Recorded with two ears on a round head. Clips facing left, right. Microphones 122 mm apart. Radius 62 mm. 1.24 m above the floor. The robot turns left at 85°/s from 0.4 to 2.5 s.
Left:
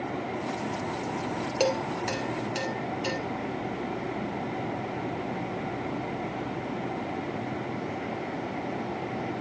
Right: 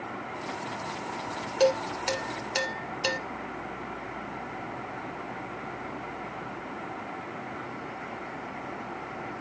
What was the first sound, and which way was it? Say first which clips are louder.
Dishes clattering: right 4 dB; 15° left (ahead or behind).